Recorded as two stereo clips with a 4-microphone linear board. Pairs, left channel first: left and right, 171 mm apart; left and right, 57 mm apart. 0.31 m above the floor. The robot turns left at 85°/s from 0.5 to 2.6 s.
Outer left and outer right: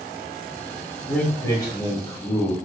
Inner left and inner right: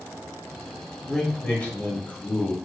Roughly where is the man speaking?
Centre.